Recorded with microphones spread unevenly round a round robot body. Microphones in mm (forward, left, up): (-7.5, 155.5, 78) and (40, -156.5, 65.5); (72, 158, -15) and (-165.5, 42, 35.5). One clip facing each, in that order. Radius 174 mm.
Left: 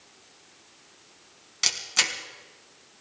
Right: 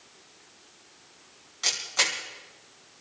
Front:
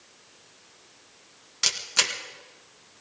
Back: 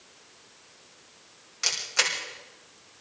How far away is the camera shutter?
About 3.5 m.